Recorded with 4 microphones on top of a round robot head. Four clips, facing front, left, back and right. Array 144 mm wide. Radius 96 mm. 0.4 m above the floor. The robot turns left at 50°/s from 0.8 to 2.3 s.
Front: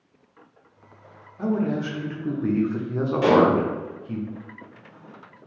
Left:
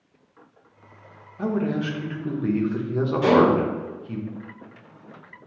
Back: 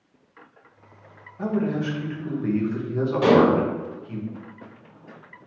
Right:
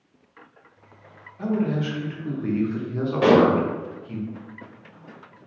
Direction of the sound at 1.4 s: 90° left.